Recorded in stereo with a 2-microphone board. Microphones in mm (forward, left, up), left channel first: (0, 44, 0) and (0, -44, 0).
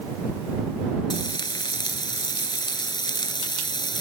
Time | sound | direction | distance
1.1 | frying | 55° left (ahead or behind) | ?